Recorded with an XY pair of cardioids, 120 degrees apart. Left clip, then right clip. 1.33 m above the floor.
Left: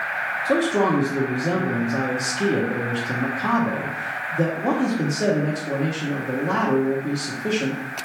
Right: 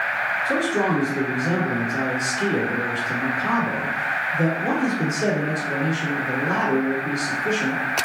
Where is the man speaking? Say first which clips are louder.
Left 1 dB; 50° left, 0.9 m.